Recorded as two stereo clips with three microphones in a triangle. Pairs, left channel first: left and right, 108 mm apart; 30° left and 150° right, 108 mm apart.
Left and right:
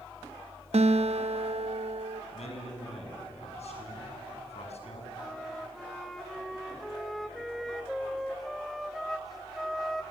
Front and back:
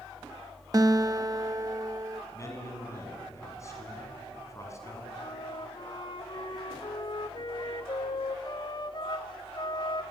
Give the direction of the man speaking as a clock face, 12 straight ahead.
9 o'clock.